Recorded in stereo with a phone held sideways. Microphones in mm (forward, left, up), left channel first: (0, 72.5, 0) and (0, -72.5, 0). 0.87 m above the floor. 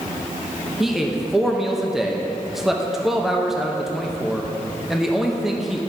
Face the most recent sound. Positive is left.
turn(degrees=-5)  # may be behind; listen again after turning